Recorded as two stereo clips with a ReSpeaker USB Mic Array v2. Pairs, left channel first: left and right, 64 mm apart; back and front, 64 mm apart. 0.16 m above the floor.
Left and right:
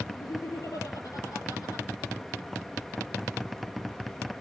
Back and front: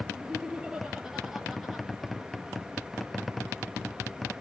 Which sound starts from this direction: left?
Laughter, at 0.1 s.